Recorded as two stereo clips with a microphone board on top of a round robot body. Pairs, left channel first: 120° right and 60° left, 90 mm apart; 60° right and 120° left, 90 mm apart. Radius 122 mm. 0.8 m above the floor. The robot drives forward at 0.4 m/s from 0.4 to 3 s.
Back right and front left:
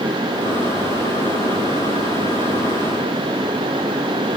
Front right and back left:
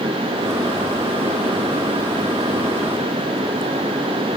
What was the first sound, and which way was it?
Only background noise.